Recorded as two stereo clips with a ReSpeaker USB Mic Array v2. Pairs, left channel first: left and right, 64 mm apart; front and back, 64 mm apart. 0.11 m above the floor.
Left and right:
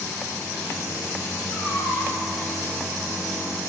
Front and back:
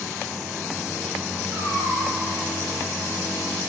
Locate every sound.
1.5 s a cat meowing: 140° left, 2 m